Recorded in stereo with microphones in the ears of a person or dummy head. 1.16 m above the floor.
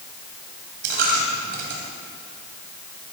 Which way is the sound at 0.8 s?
55° right (ahead or behind).